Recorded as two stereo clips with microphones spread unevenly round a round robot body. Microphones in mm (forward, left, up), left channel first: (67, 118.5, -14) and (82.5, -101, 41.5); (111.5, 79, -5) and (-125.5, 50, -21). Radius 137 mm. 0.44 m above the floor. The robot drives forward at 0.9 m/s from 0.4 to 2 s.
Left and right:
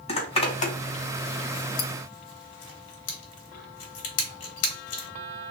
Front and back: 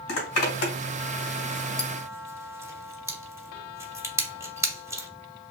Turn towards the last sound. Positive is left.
turn(degrees=110)